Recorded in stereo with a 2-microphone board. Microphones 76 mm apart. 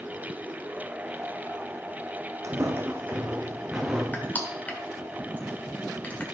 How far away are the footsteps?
About 1.3 m.